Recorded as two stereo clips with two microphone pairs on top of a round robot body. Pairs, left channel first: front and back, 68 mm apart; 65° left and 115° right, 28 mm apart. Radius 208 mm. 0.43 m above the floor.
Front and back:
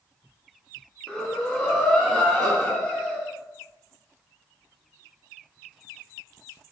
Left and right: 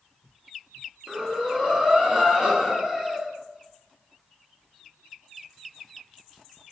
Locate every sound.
1.1 s breathing: 60° right, 0.8 m